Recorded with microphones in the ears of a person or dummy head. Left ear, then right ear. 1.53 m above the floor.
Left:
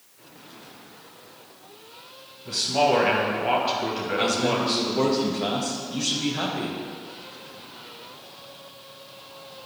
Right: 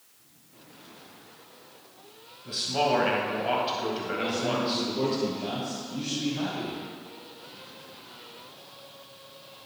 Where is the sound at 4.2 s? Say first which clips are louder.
Left 6 dB; 60° left (ahead or behind), 2.0 m.